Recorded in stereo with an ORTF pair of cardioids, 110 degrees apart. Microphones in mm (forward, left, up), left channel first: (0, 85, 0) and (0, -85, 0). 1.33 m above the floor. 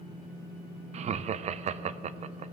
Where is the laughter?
40° right, 0.6 m.